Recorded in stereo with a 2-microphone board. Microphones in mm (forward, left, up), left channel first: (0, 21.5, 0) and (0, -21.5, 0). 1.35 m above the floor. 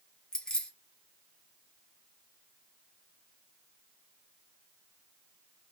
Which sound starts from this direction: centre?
Keys jangling, at 0.3 s.